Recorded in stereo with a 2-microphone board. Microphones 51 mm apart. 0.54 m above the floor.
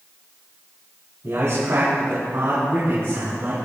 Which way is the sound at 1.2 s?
80° right.